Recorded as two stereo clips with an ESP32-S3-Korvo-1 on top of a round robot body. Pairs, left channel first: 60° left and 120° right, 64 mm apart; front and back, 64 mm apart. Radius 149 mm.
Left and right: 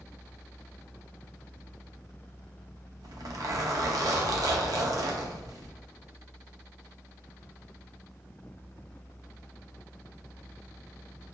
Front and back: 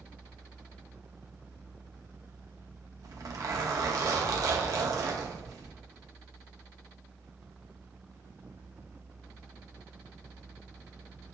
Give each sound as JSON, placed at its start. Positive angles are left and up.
{"t": 3.0, "sound": "a zipper", "azimuth_deg": -150, "distance_m": 0.6}